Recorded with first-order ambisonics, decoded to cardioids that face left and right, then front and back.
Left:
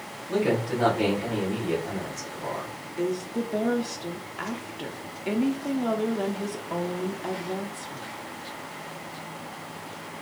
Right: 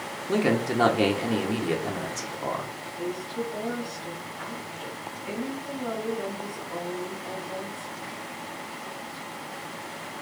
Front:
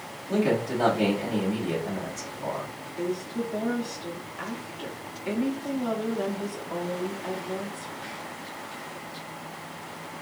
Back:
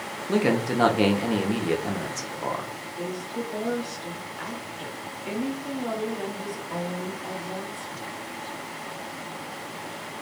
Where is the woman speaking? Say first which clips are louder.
Left 4 dB, front 3 dB; 85° left, 0.7 m.